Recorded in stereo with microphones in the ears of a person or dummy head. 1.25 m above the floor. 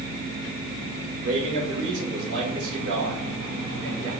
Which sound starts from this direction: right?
A man speaking, at 1.2 s.